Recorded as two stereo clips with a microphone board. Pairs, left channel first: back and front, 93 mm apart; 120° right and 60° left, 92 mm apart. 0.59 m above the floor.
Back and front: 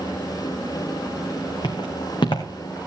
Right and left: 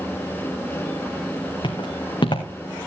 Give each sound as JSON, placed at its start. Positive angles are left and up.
{"t": 1.6, "sound": "footsteps", "azimuth_deg": -150, "distance_m": 2.5}